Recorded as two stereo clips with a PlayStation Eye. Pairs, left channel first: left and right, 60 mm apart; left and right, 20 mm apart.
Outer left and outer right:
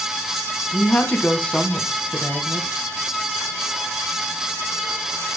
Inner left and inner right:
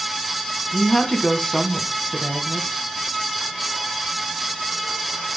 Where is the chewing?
No chewing in this recording.